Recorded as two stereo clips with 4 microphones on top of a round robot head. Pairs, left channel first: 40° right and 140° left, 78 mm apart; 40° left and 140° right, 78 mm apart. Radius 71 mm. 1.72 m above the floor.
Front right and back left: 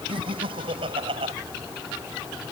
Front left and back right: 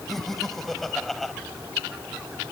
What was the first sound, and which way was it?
Laughter, 125° left.